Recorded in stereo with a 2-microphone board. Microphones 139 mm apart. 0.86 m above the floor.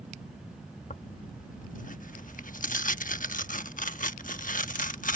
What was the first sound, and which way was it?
Tearing paper, 75° left (ahead or behind).